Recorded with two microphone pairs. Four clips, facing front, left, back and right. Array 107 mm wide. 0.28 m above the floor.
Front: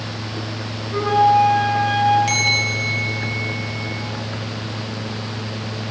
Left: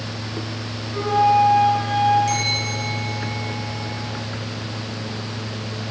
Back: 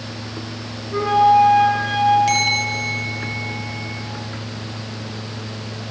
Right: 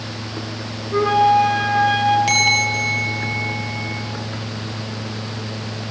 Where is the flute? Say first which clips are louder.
Right 2 dB, back 1 dB; 90° right, 5 m.